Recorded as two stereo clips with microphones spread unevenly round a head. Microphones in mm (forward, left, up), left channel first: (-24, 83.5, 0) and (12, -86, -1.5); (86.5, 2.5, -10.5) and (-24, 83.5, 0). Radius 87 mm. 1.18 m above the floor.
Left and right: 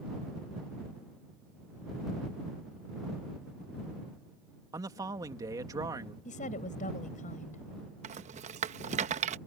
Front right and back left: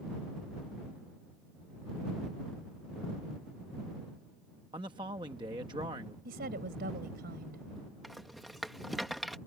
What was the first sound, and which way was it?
A man speaking, 150° right.